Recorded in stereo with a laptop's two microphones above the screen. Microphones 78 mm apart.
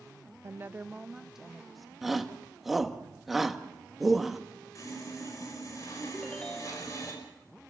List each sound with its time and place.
0.4 s a woman speaking: 40° right (ahead or behind), 0.5 m; by 1.9 s centre (ahead or behind), 1.3 m
2.0 s a shout: 5° right (ahead or behind), 1.7 m
4.8 s sawing: 45° left (ahead or behind), 6 m
6.1 s a ringtone: 10° left (ahead or behind), 0.6 m